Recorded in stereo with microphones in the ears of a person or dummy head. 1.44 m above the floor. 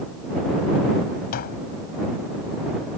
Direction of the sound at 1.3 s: 55° left (ahead or behind).